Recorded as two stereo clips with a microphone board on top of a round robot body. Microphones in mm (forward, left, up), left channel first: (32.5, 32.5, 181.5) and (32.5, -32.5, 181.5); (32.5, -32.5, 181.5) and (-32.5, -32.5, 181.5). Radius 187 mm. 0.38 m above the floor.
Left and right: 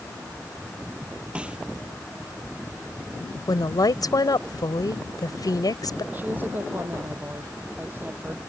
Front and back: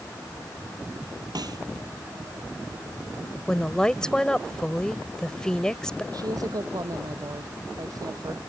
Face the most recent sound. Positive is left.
turn(degrees=-155)